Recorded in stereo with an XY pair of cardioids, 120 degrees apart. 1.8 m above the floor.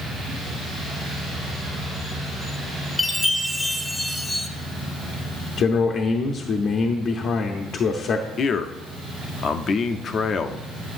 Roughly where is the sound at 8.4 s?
Ahead left.